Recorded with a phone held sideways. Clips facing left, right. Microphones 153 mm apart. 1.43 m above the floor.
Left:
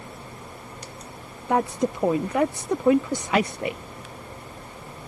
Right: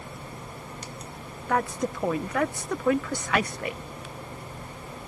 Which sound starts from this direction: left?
A woman speaking, at 1.5 s.